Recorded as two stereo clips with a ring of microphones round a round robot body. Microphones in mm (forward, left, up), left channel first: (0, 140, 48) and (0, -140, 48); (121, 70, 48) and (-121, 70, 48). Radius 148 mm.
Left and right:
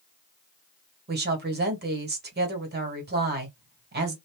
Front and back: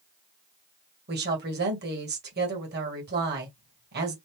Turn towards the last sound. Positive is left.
turn(degrees=-140)